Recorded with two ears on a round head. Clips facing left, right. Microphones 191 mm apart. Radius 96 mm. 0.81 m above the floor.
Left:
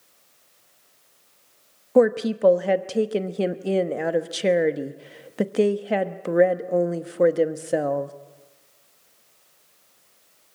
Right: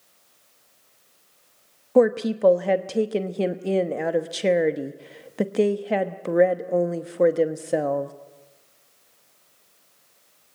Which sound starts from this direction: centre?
A woman speaking, at 1.9 s.